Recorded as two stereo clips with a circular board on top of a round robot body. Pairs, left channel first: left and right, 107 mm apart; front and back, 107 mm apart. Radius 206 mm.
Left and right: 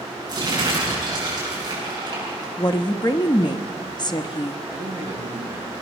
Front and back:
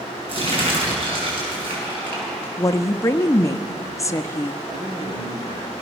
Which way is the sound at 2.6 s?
55° left.